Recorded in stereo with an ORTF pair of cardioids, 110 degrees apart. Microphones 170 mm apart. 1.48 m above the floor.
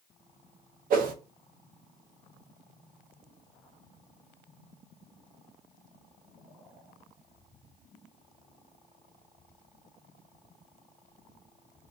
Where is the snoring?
No snoring in this recording.